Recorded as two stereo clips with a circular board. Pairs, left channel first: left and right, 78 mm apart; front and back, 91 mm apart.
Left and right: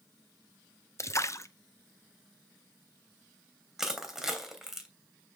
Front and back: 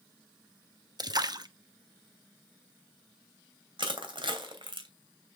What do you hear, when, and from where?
1.0 s a splash: 140° left, 0.9 m
3.8 s crushing: 175° right, 2.5 m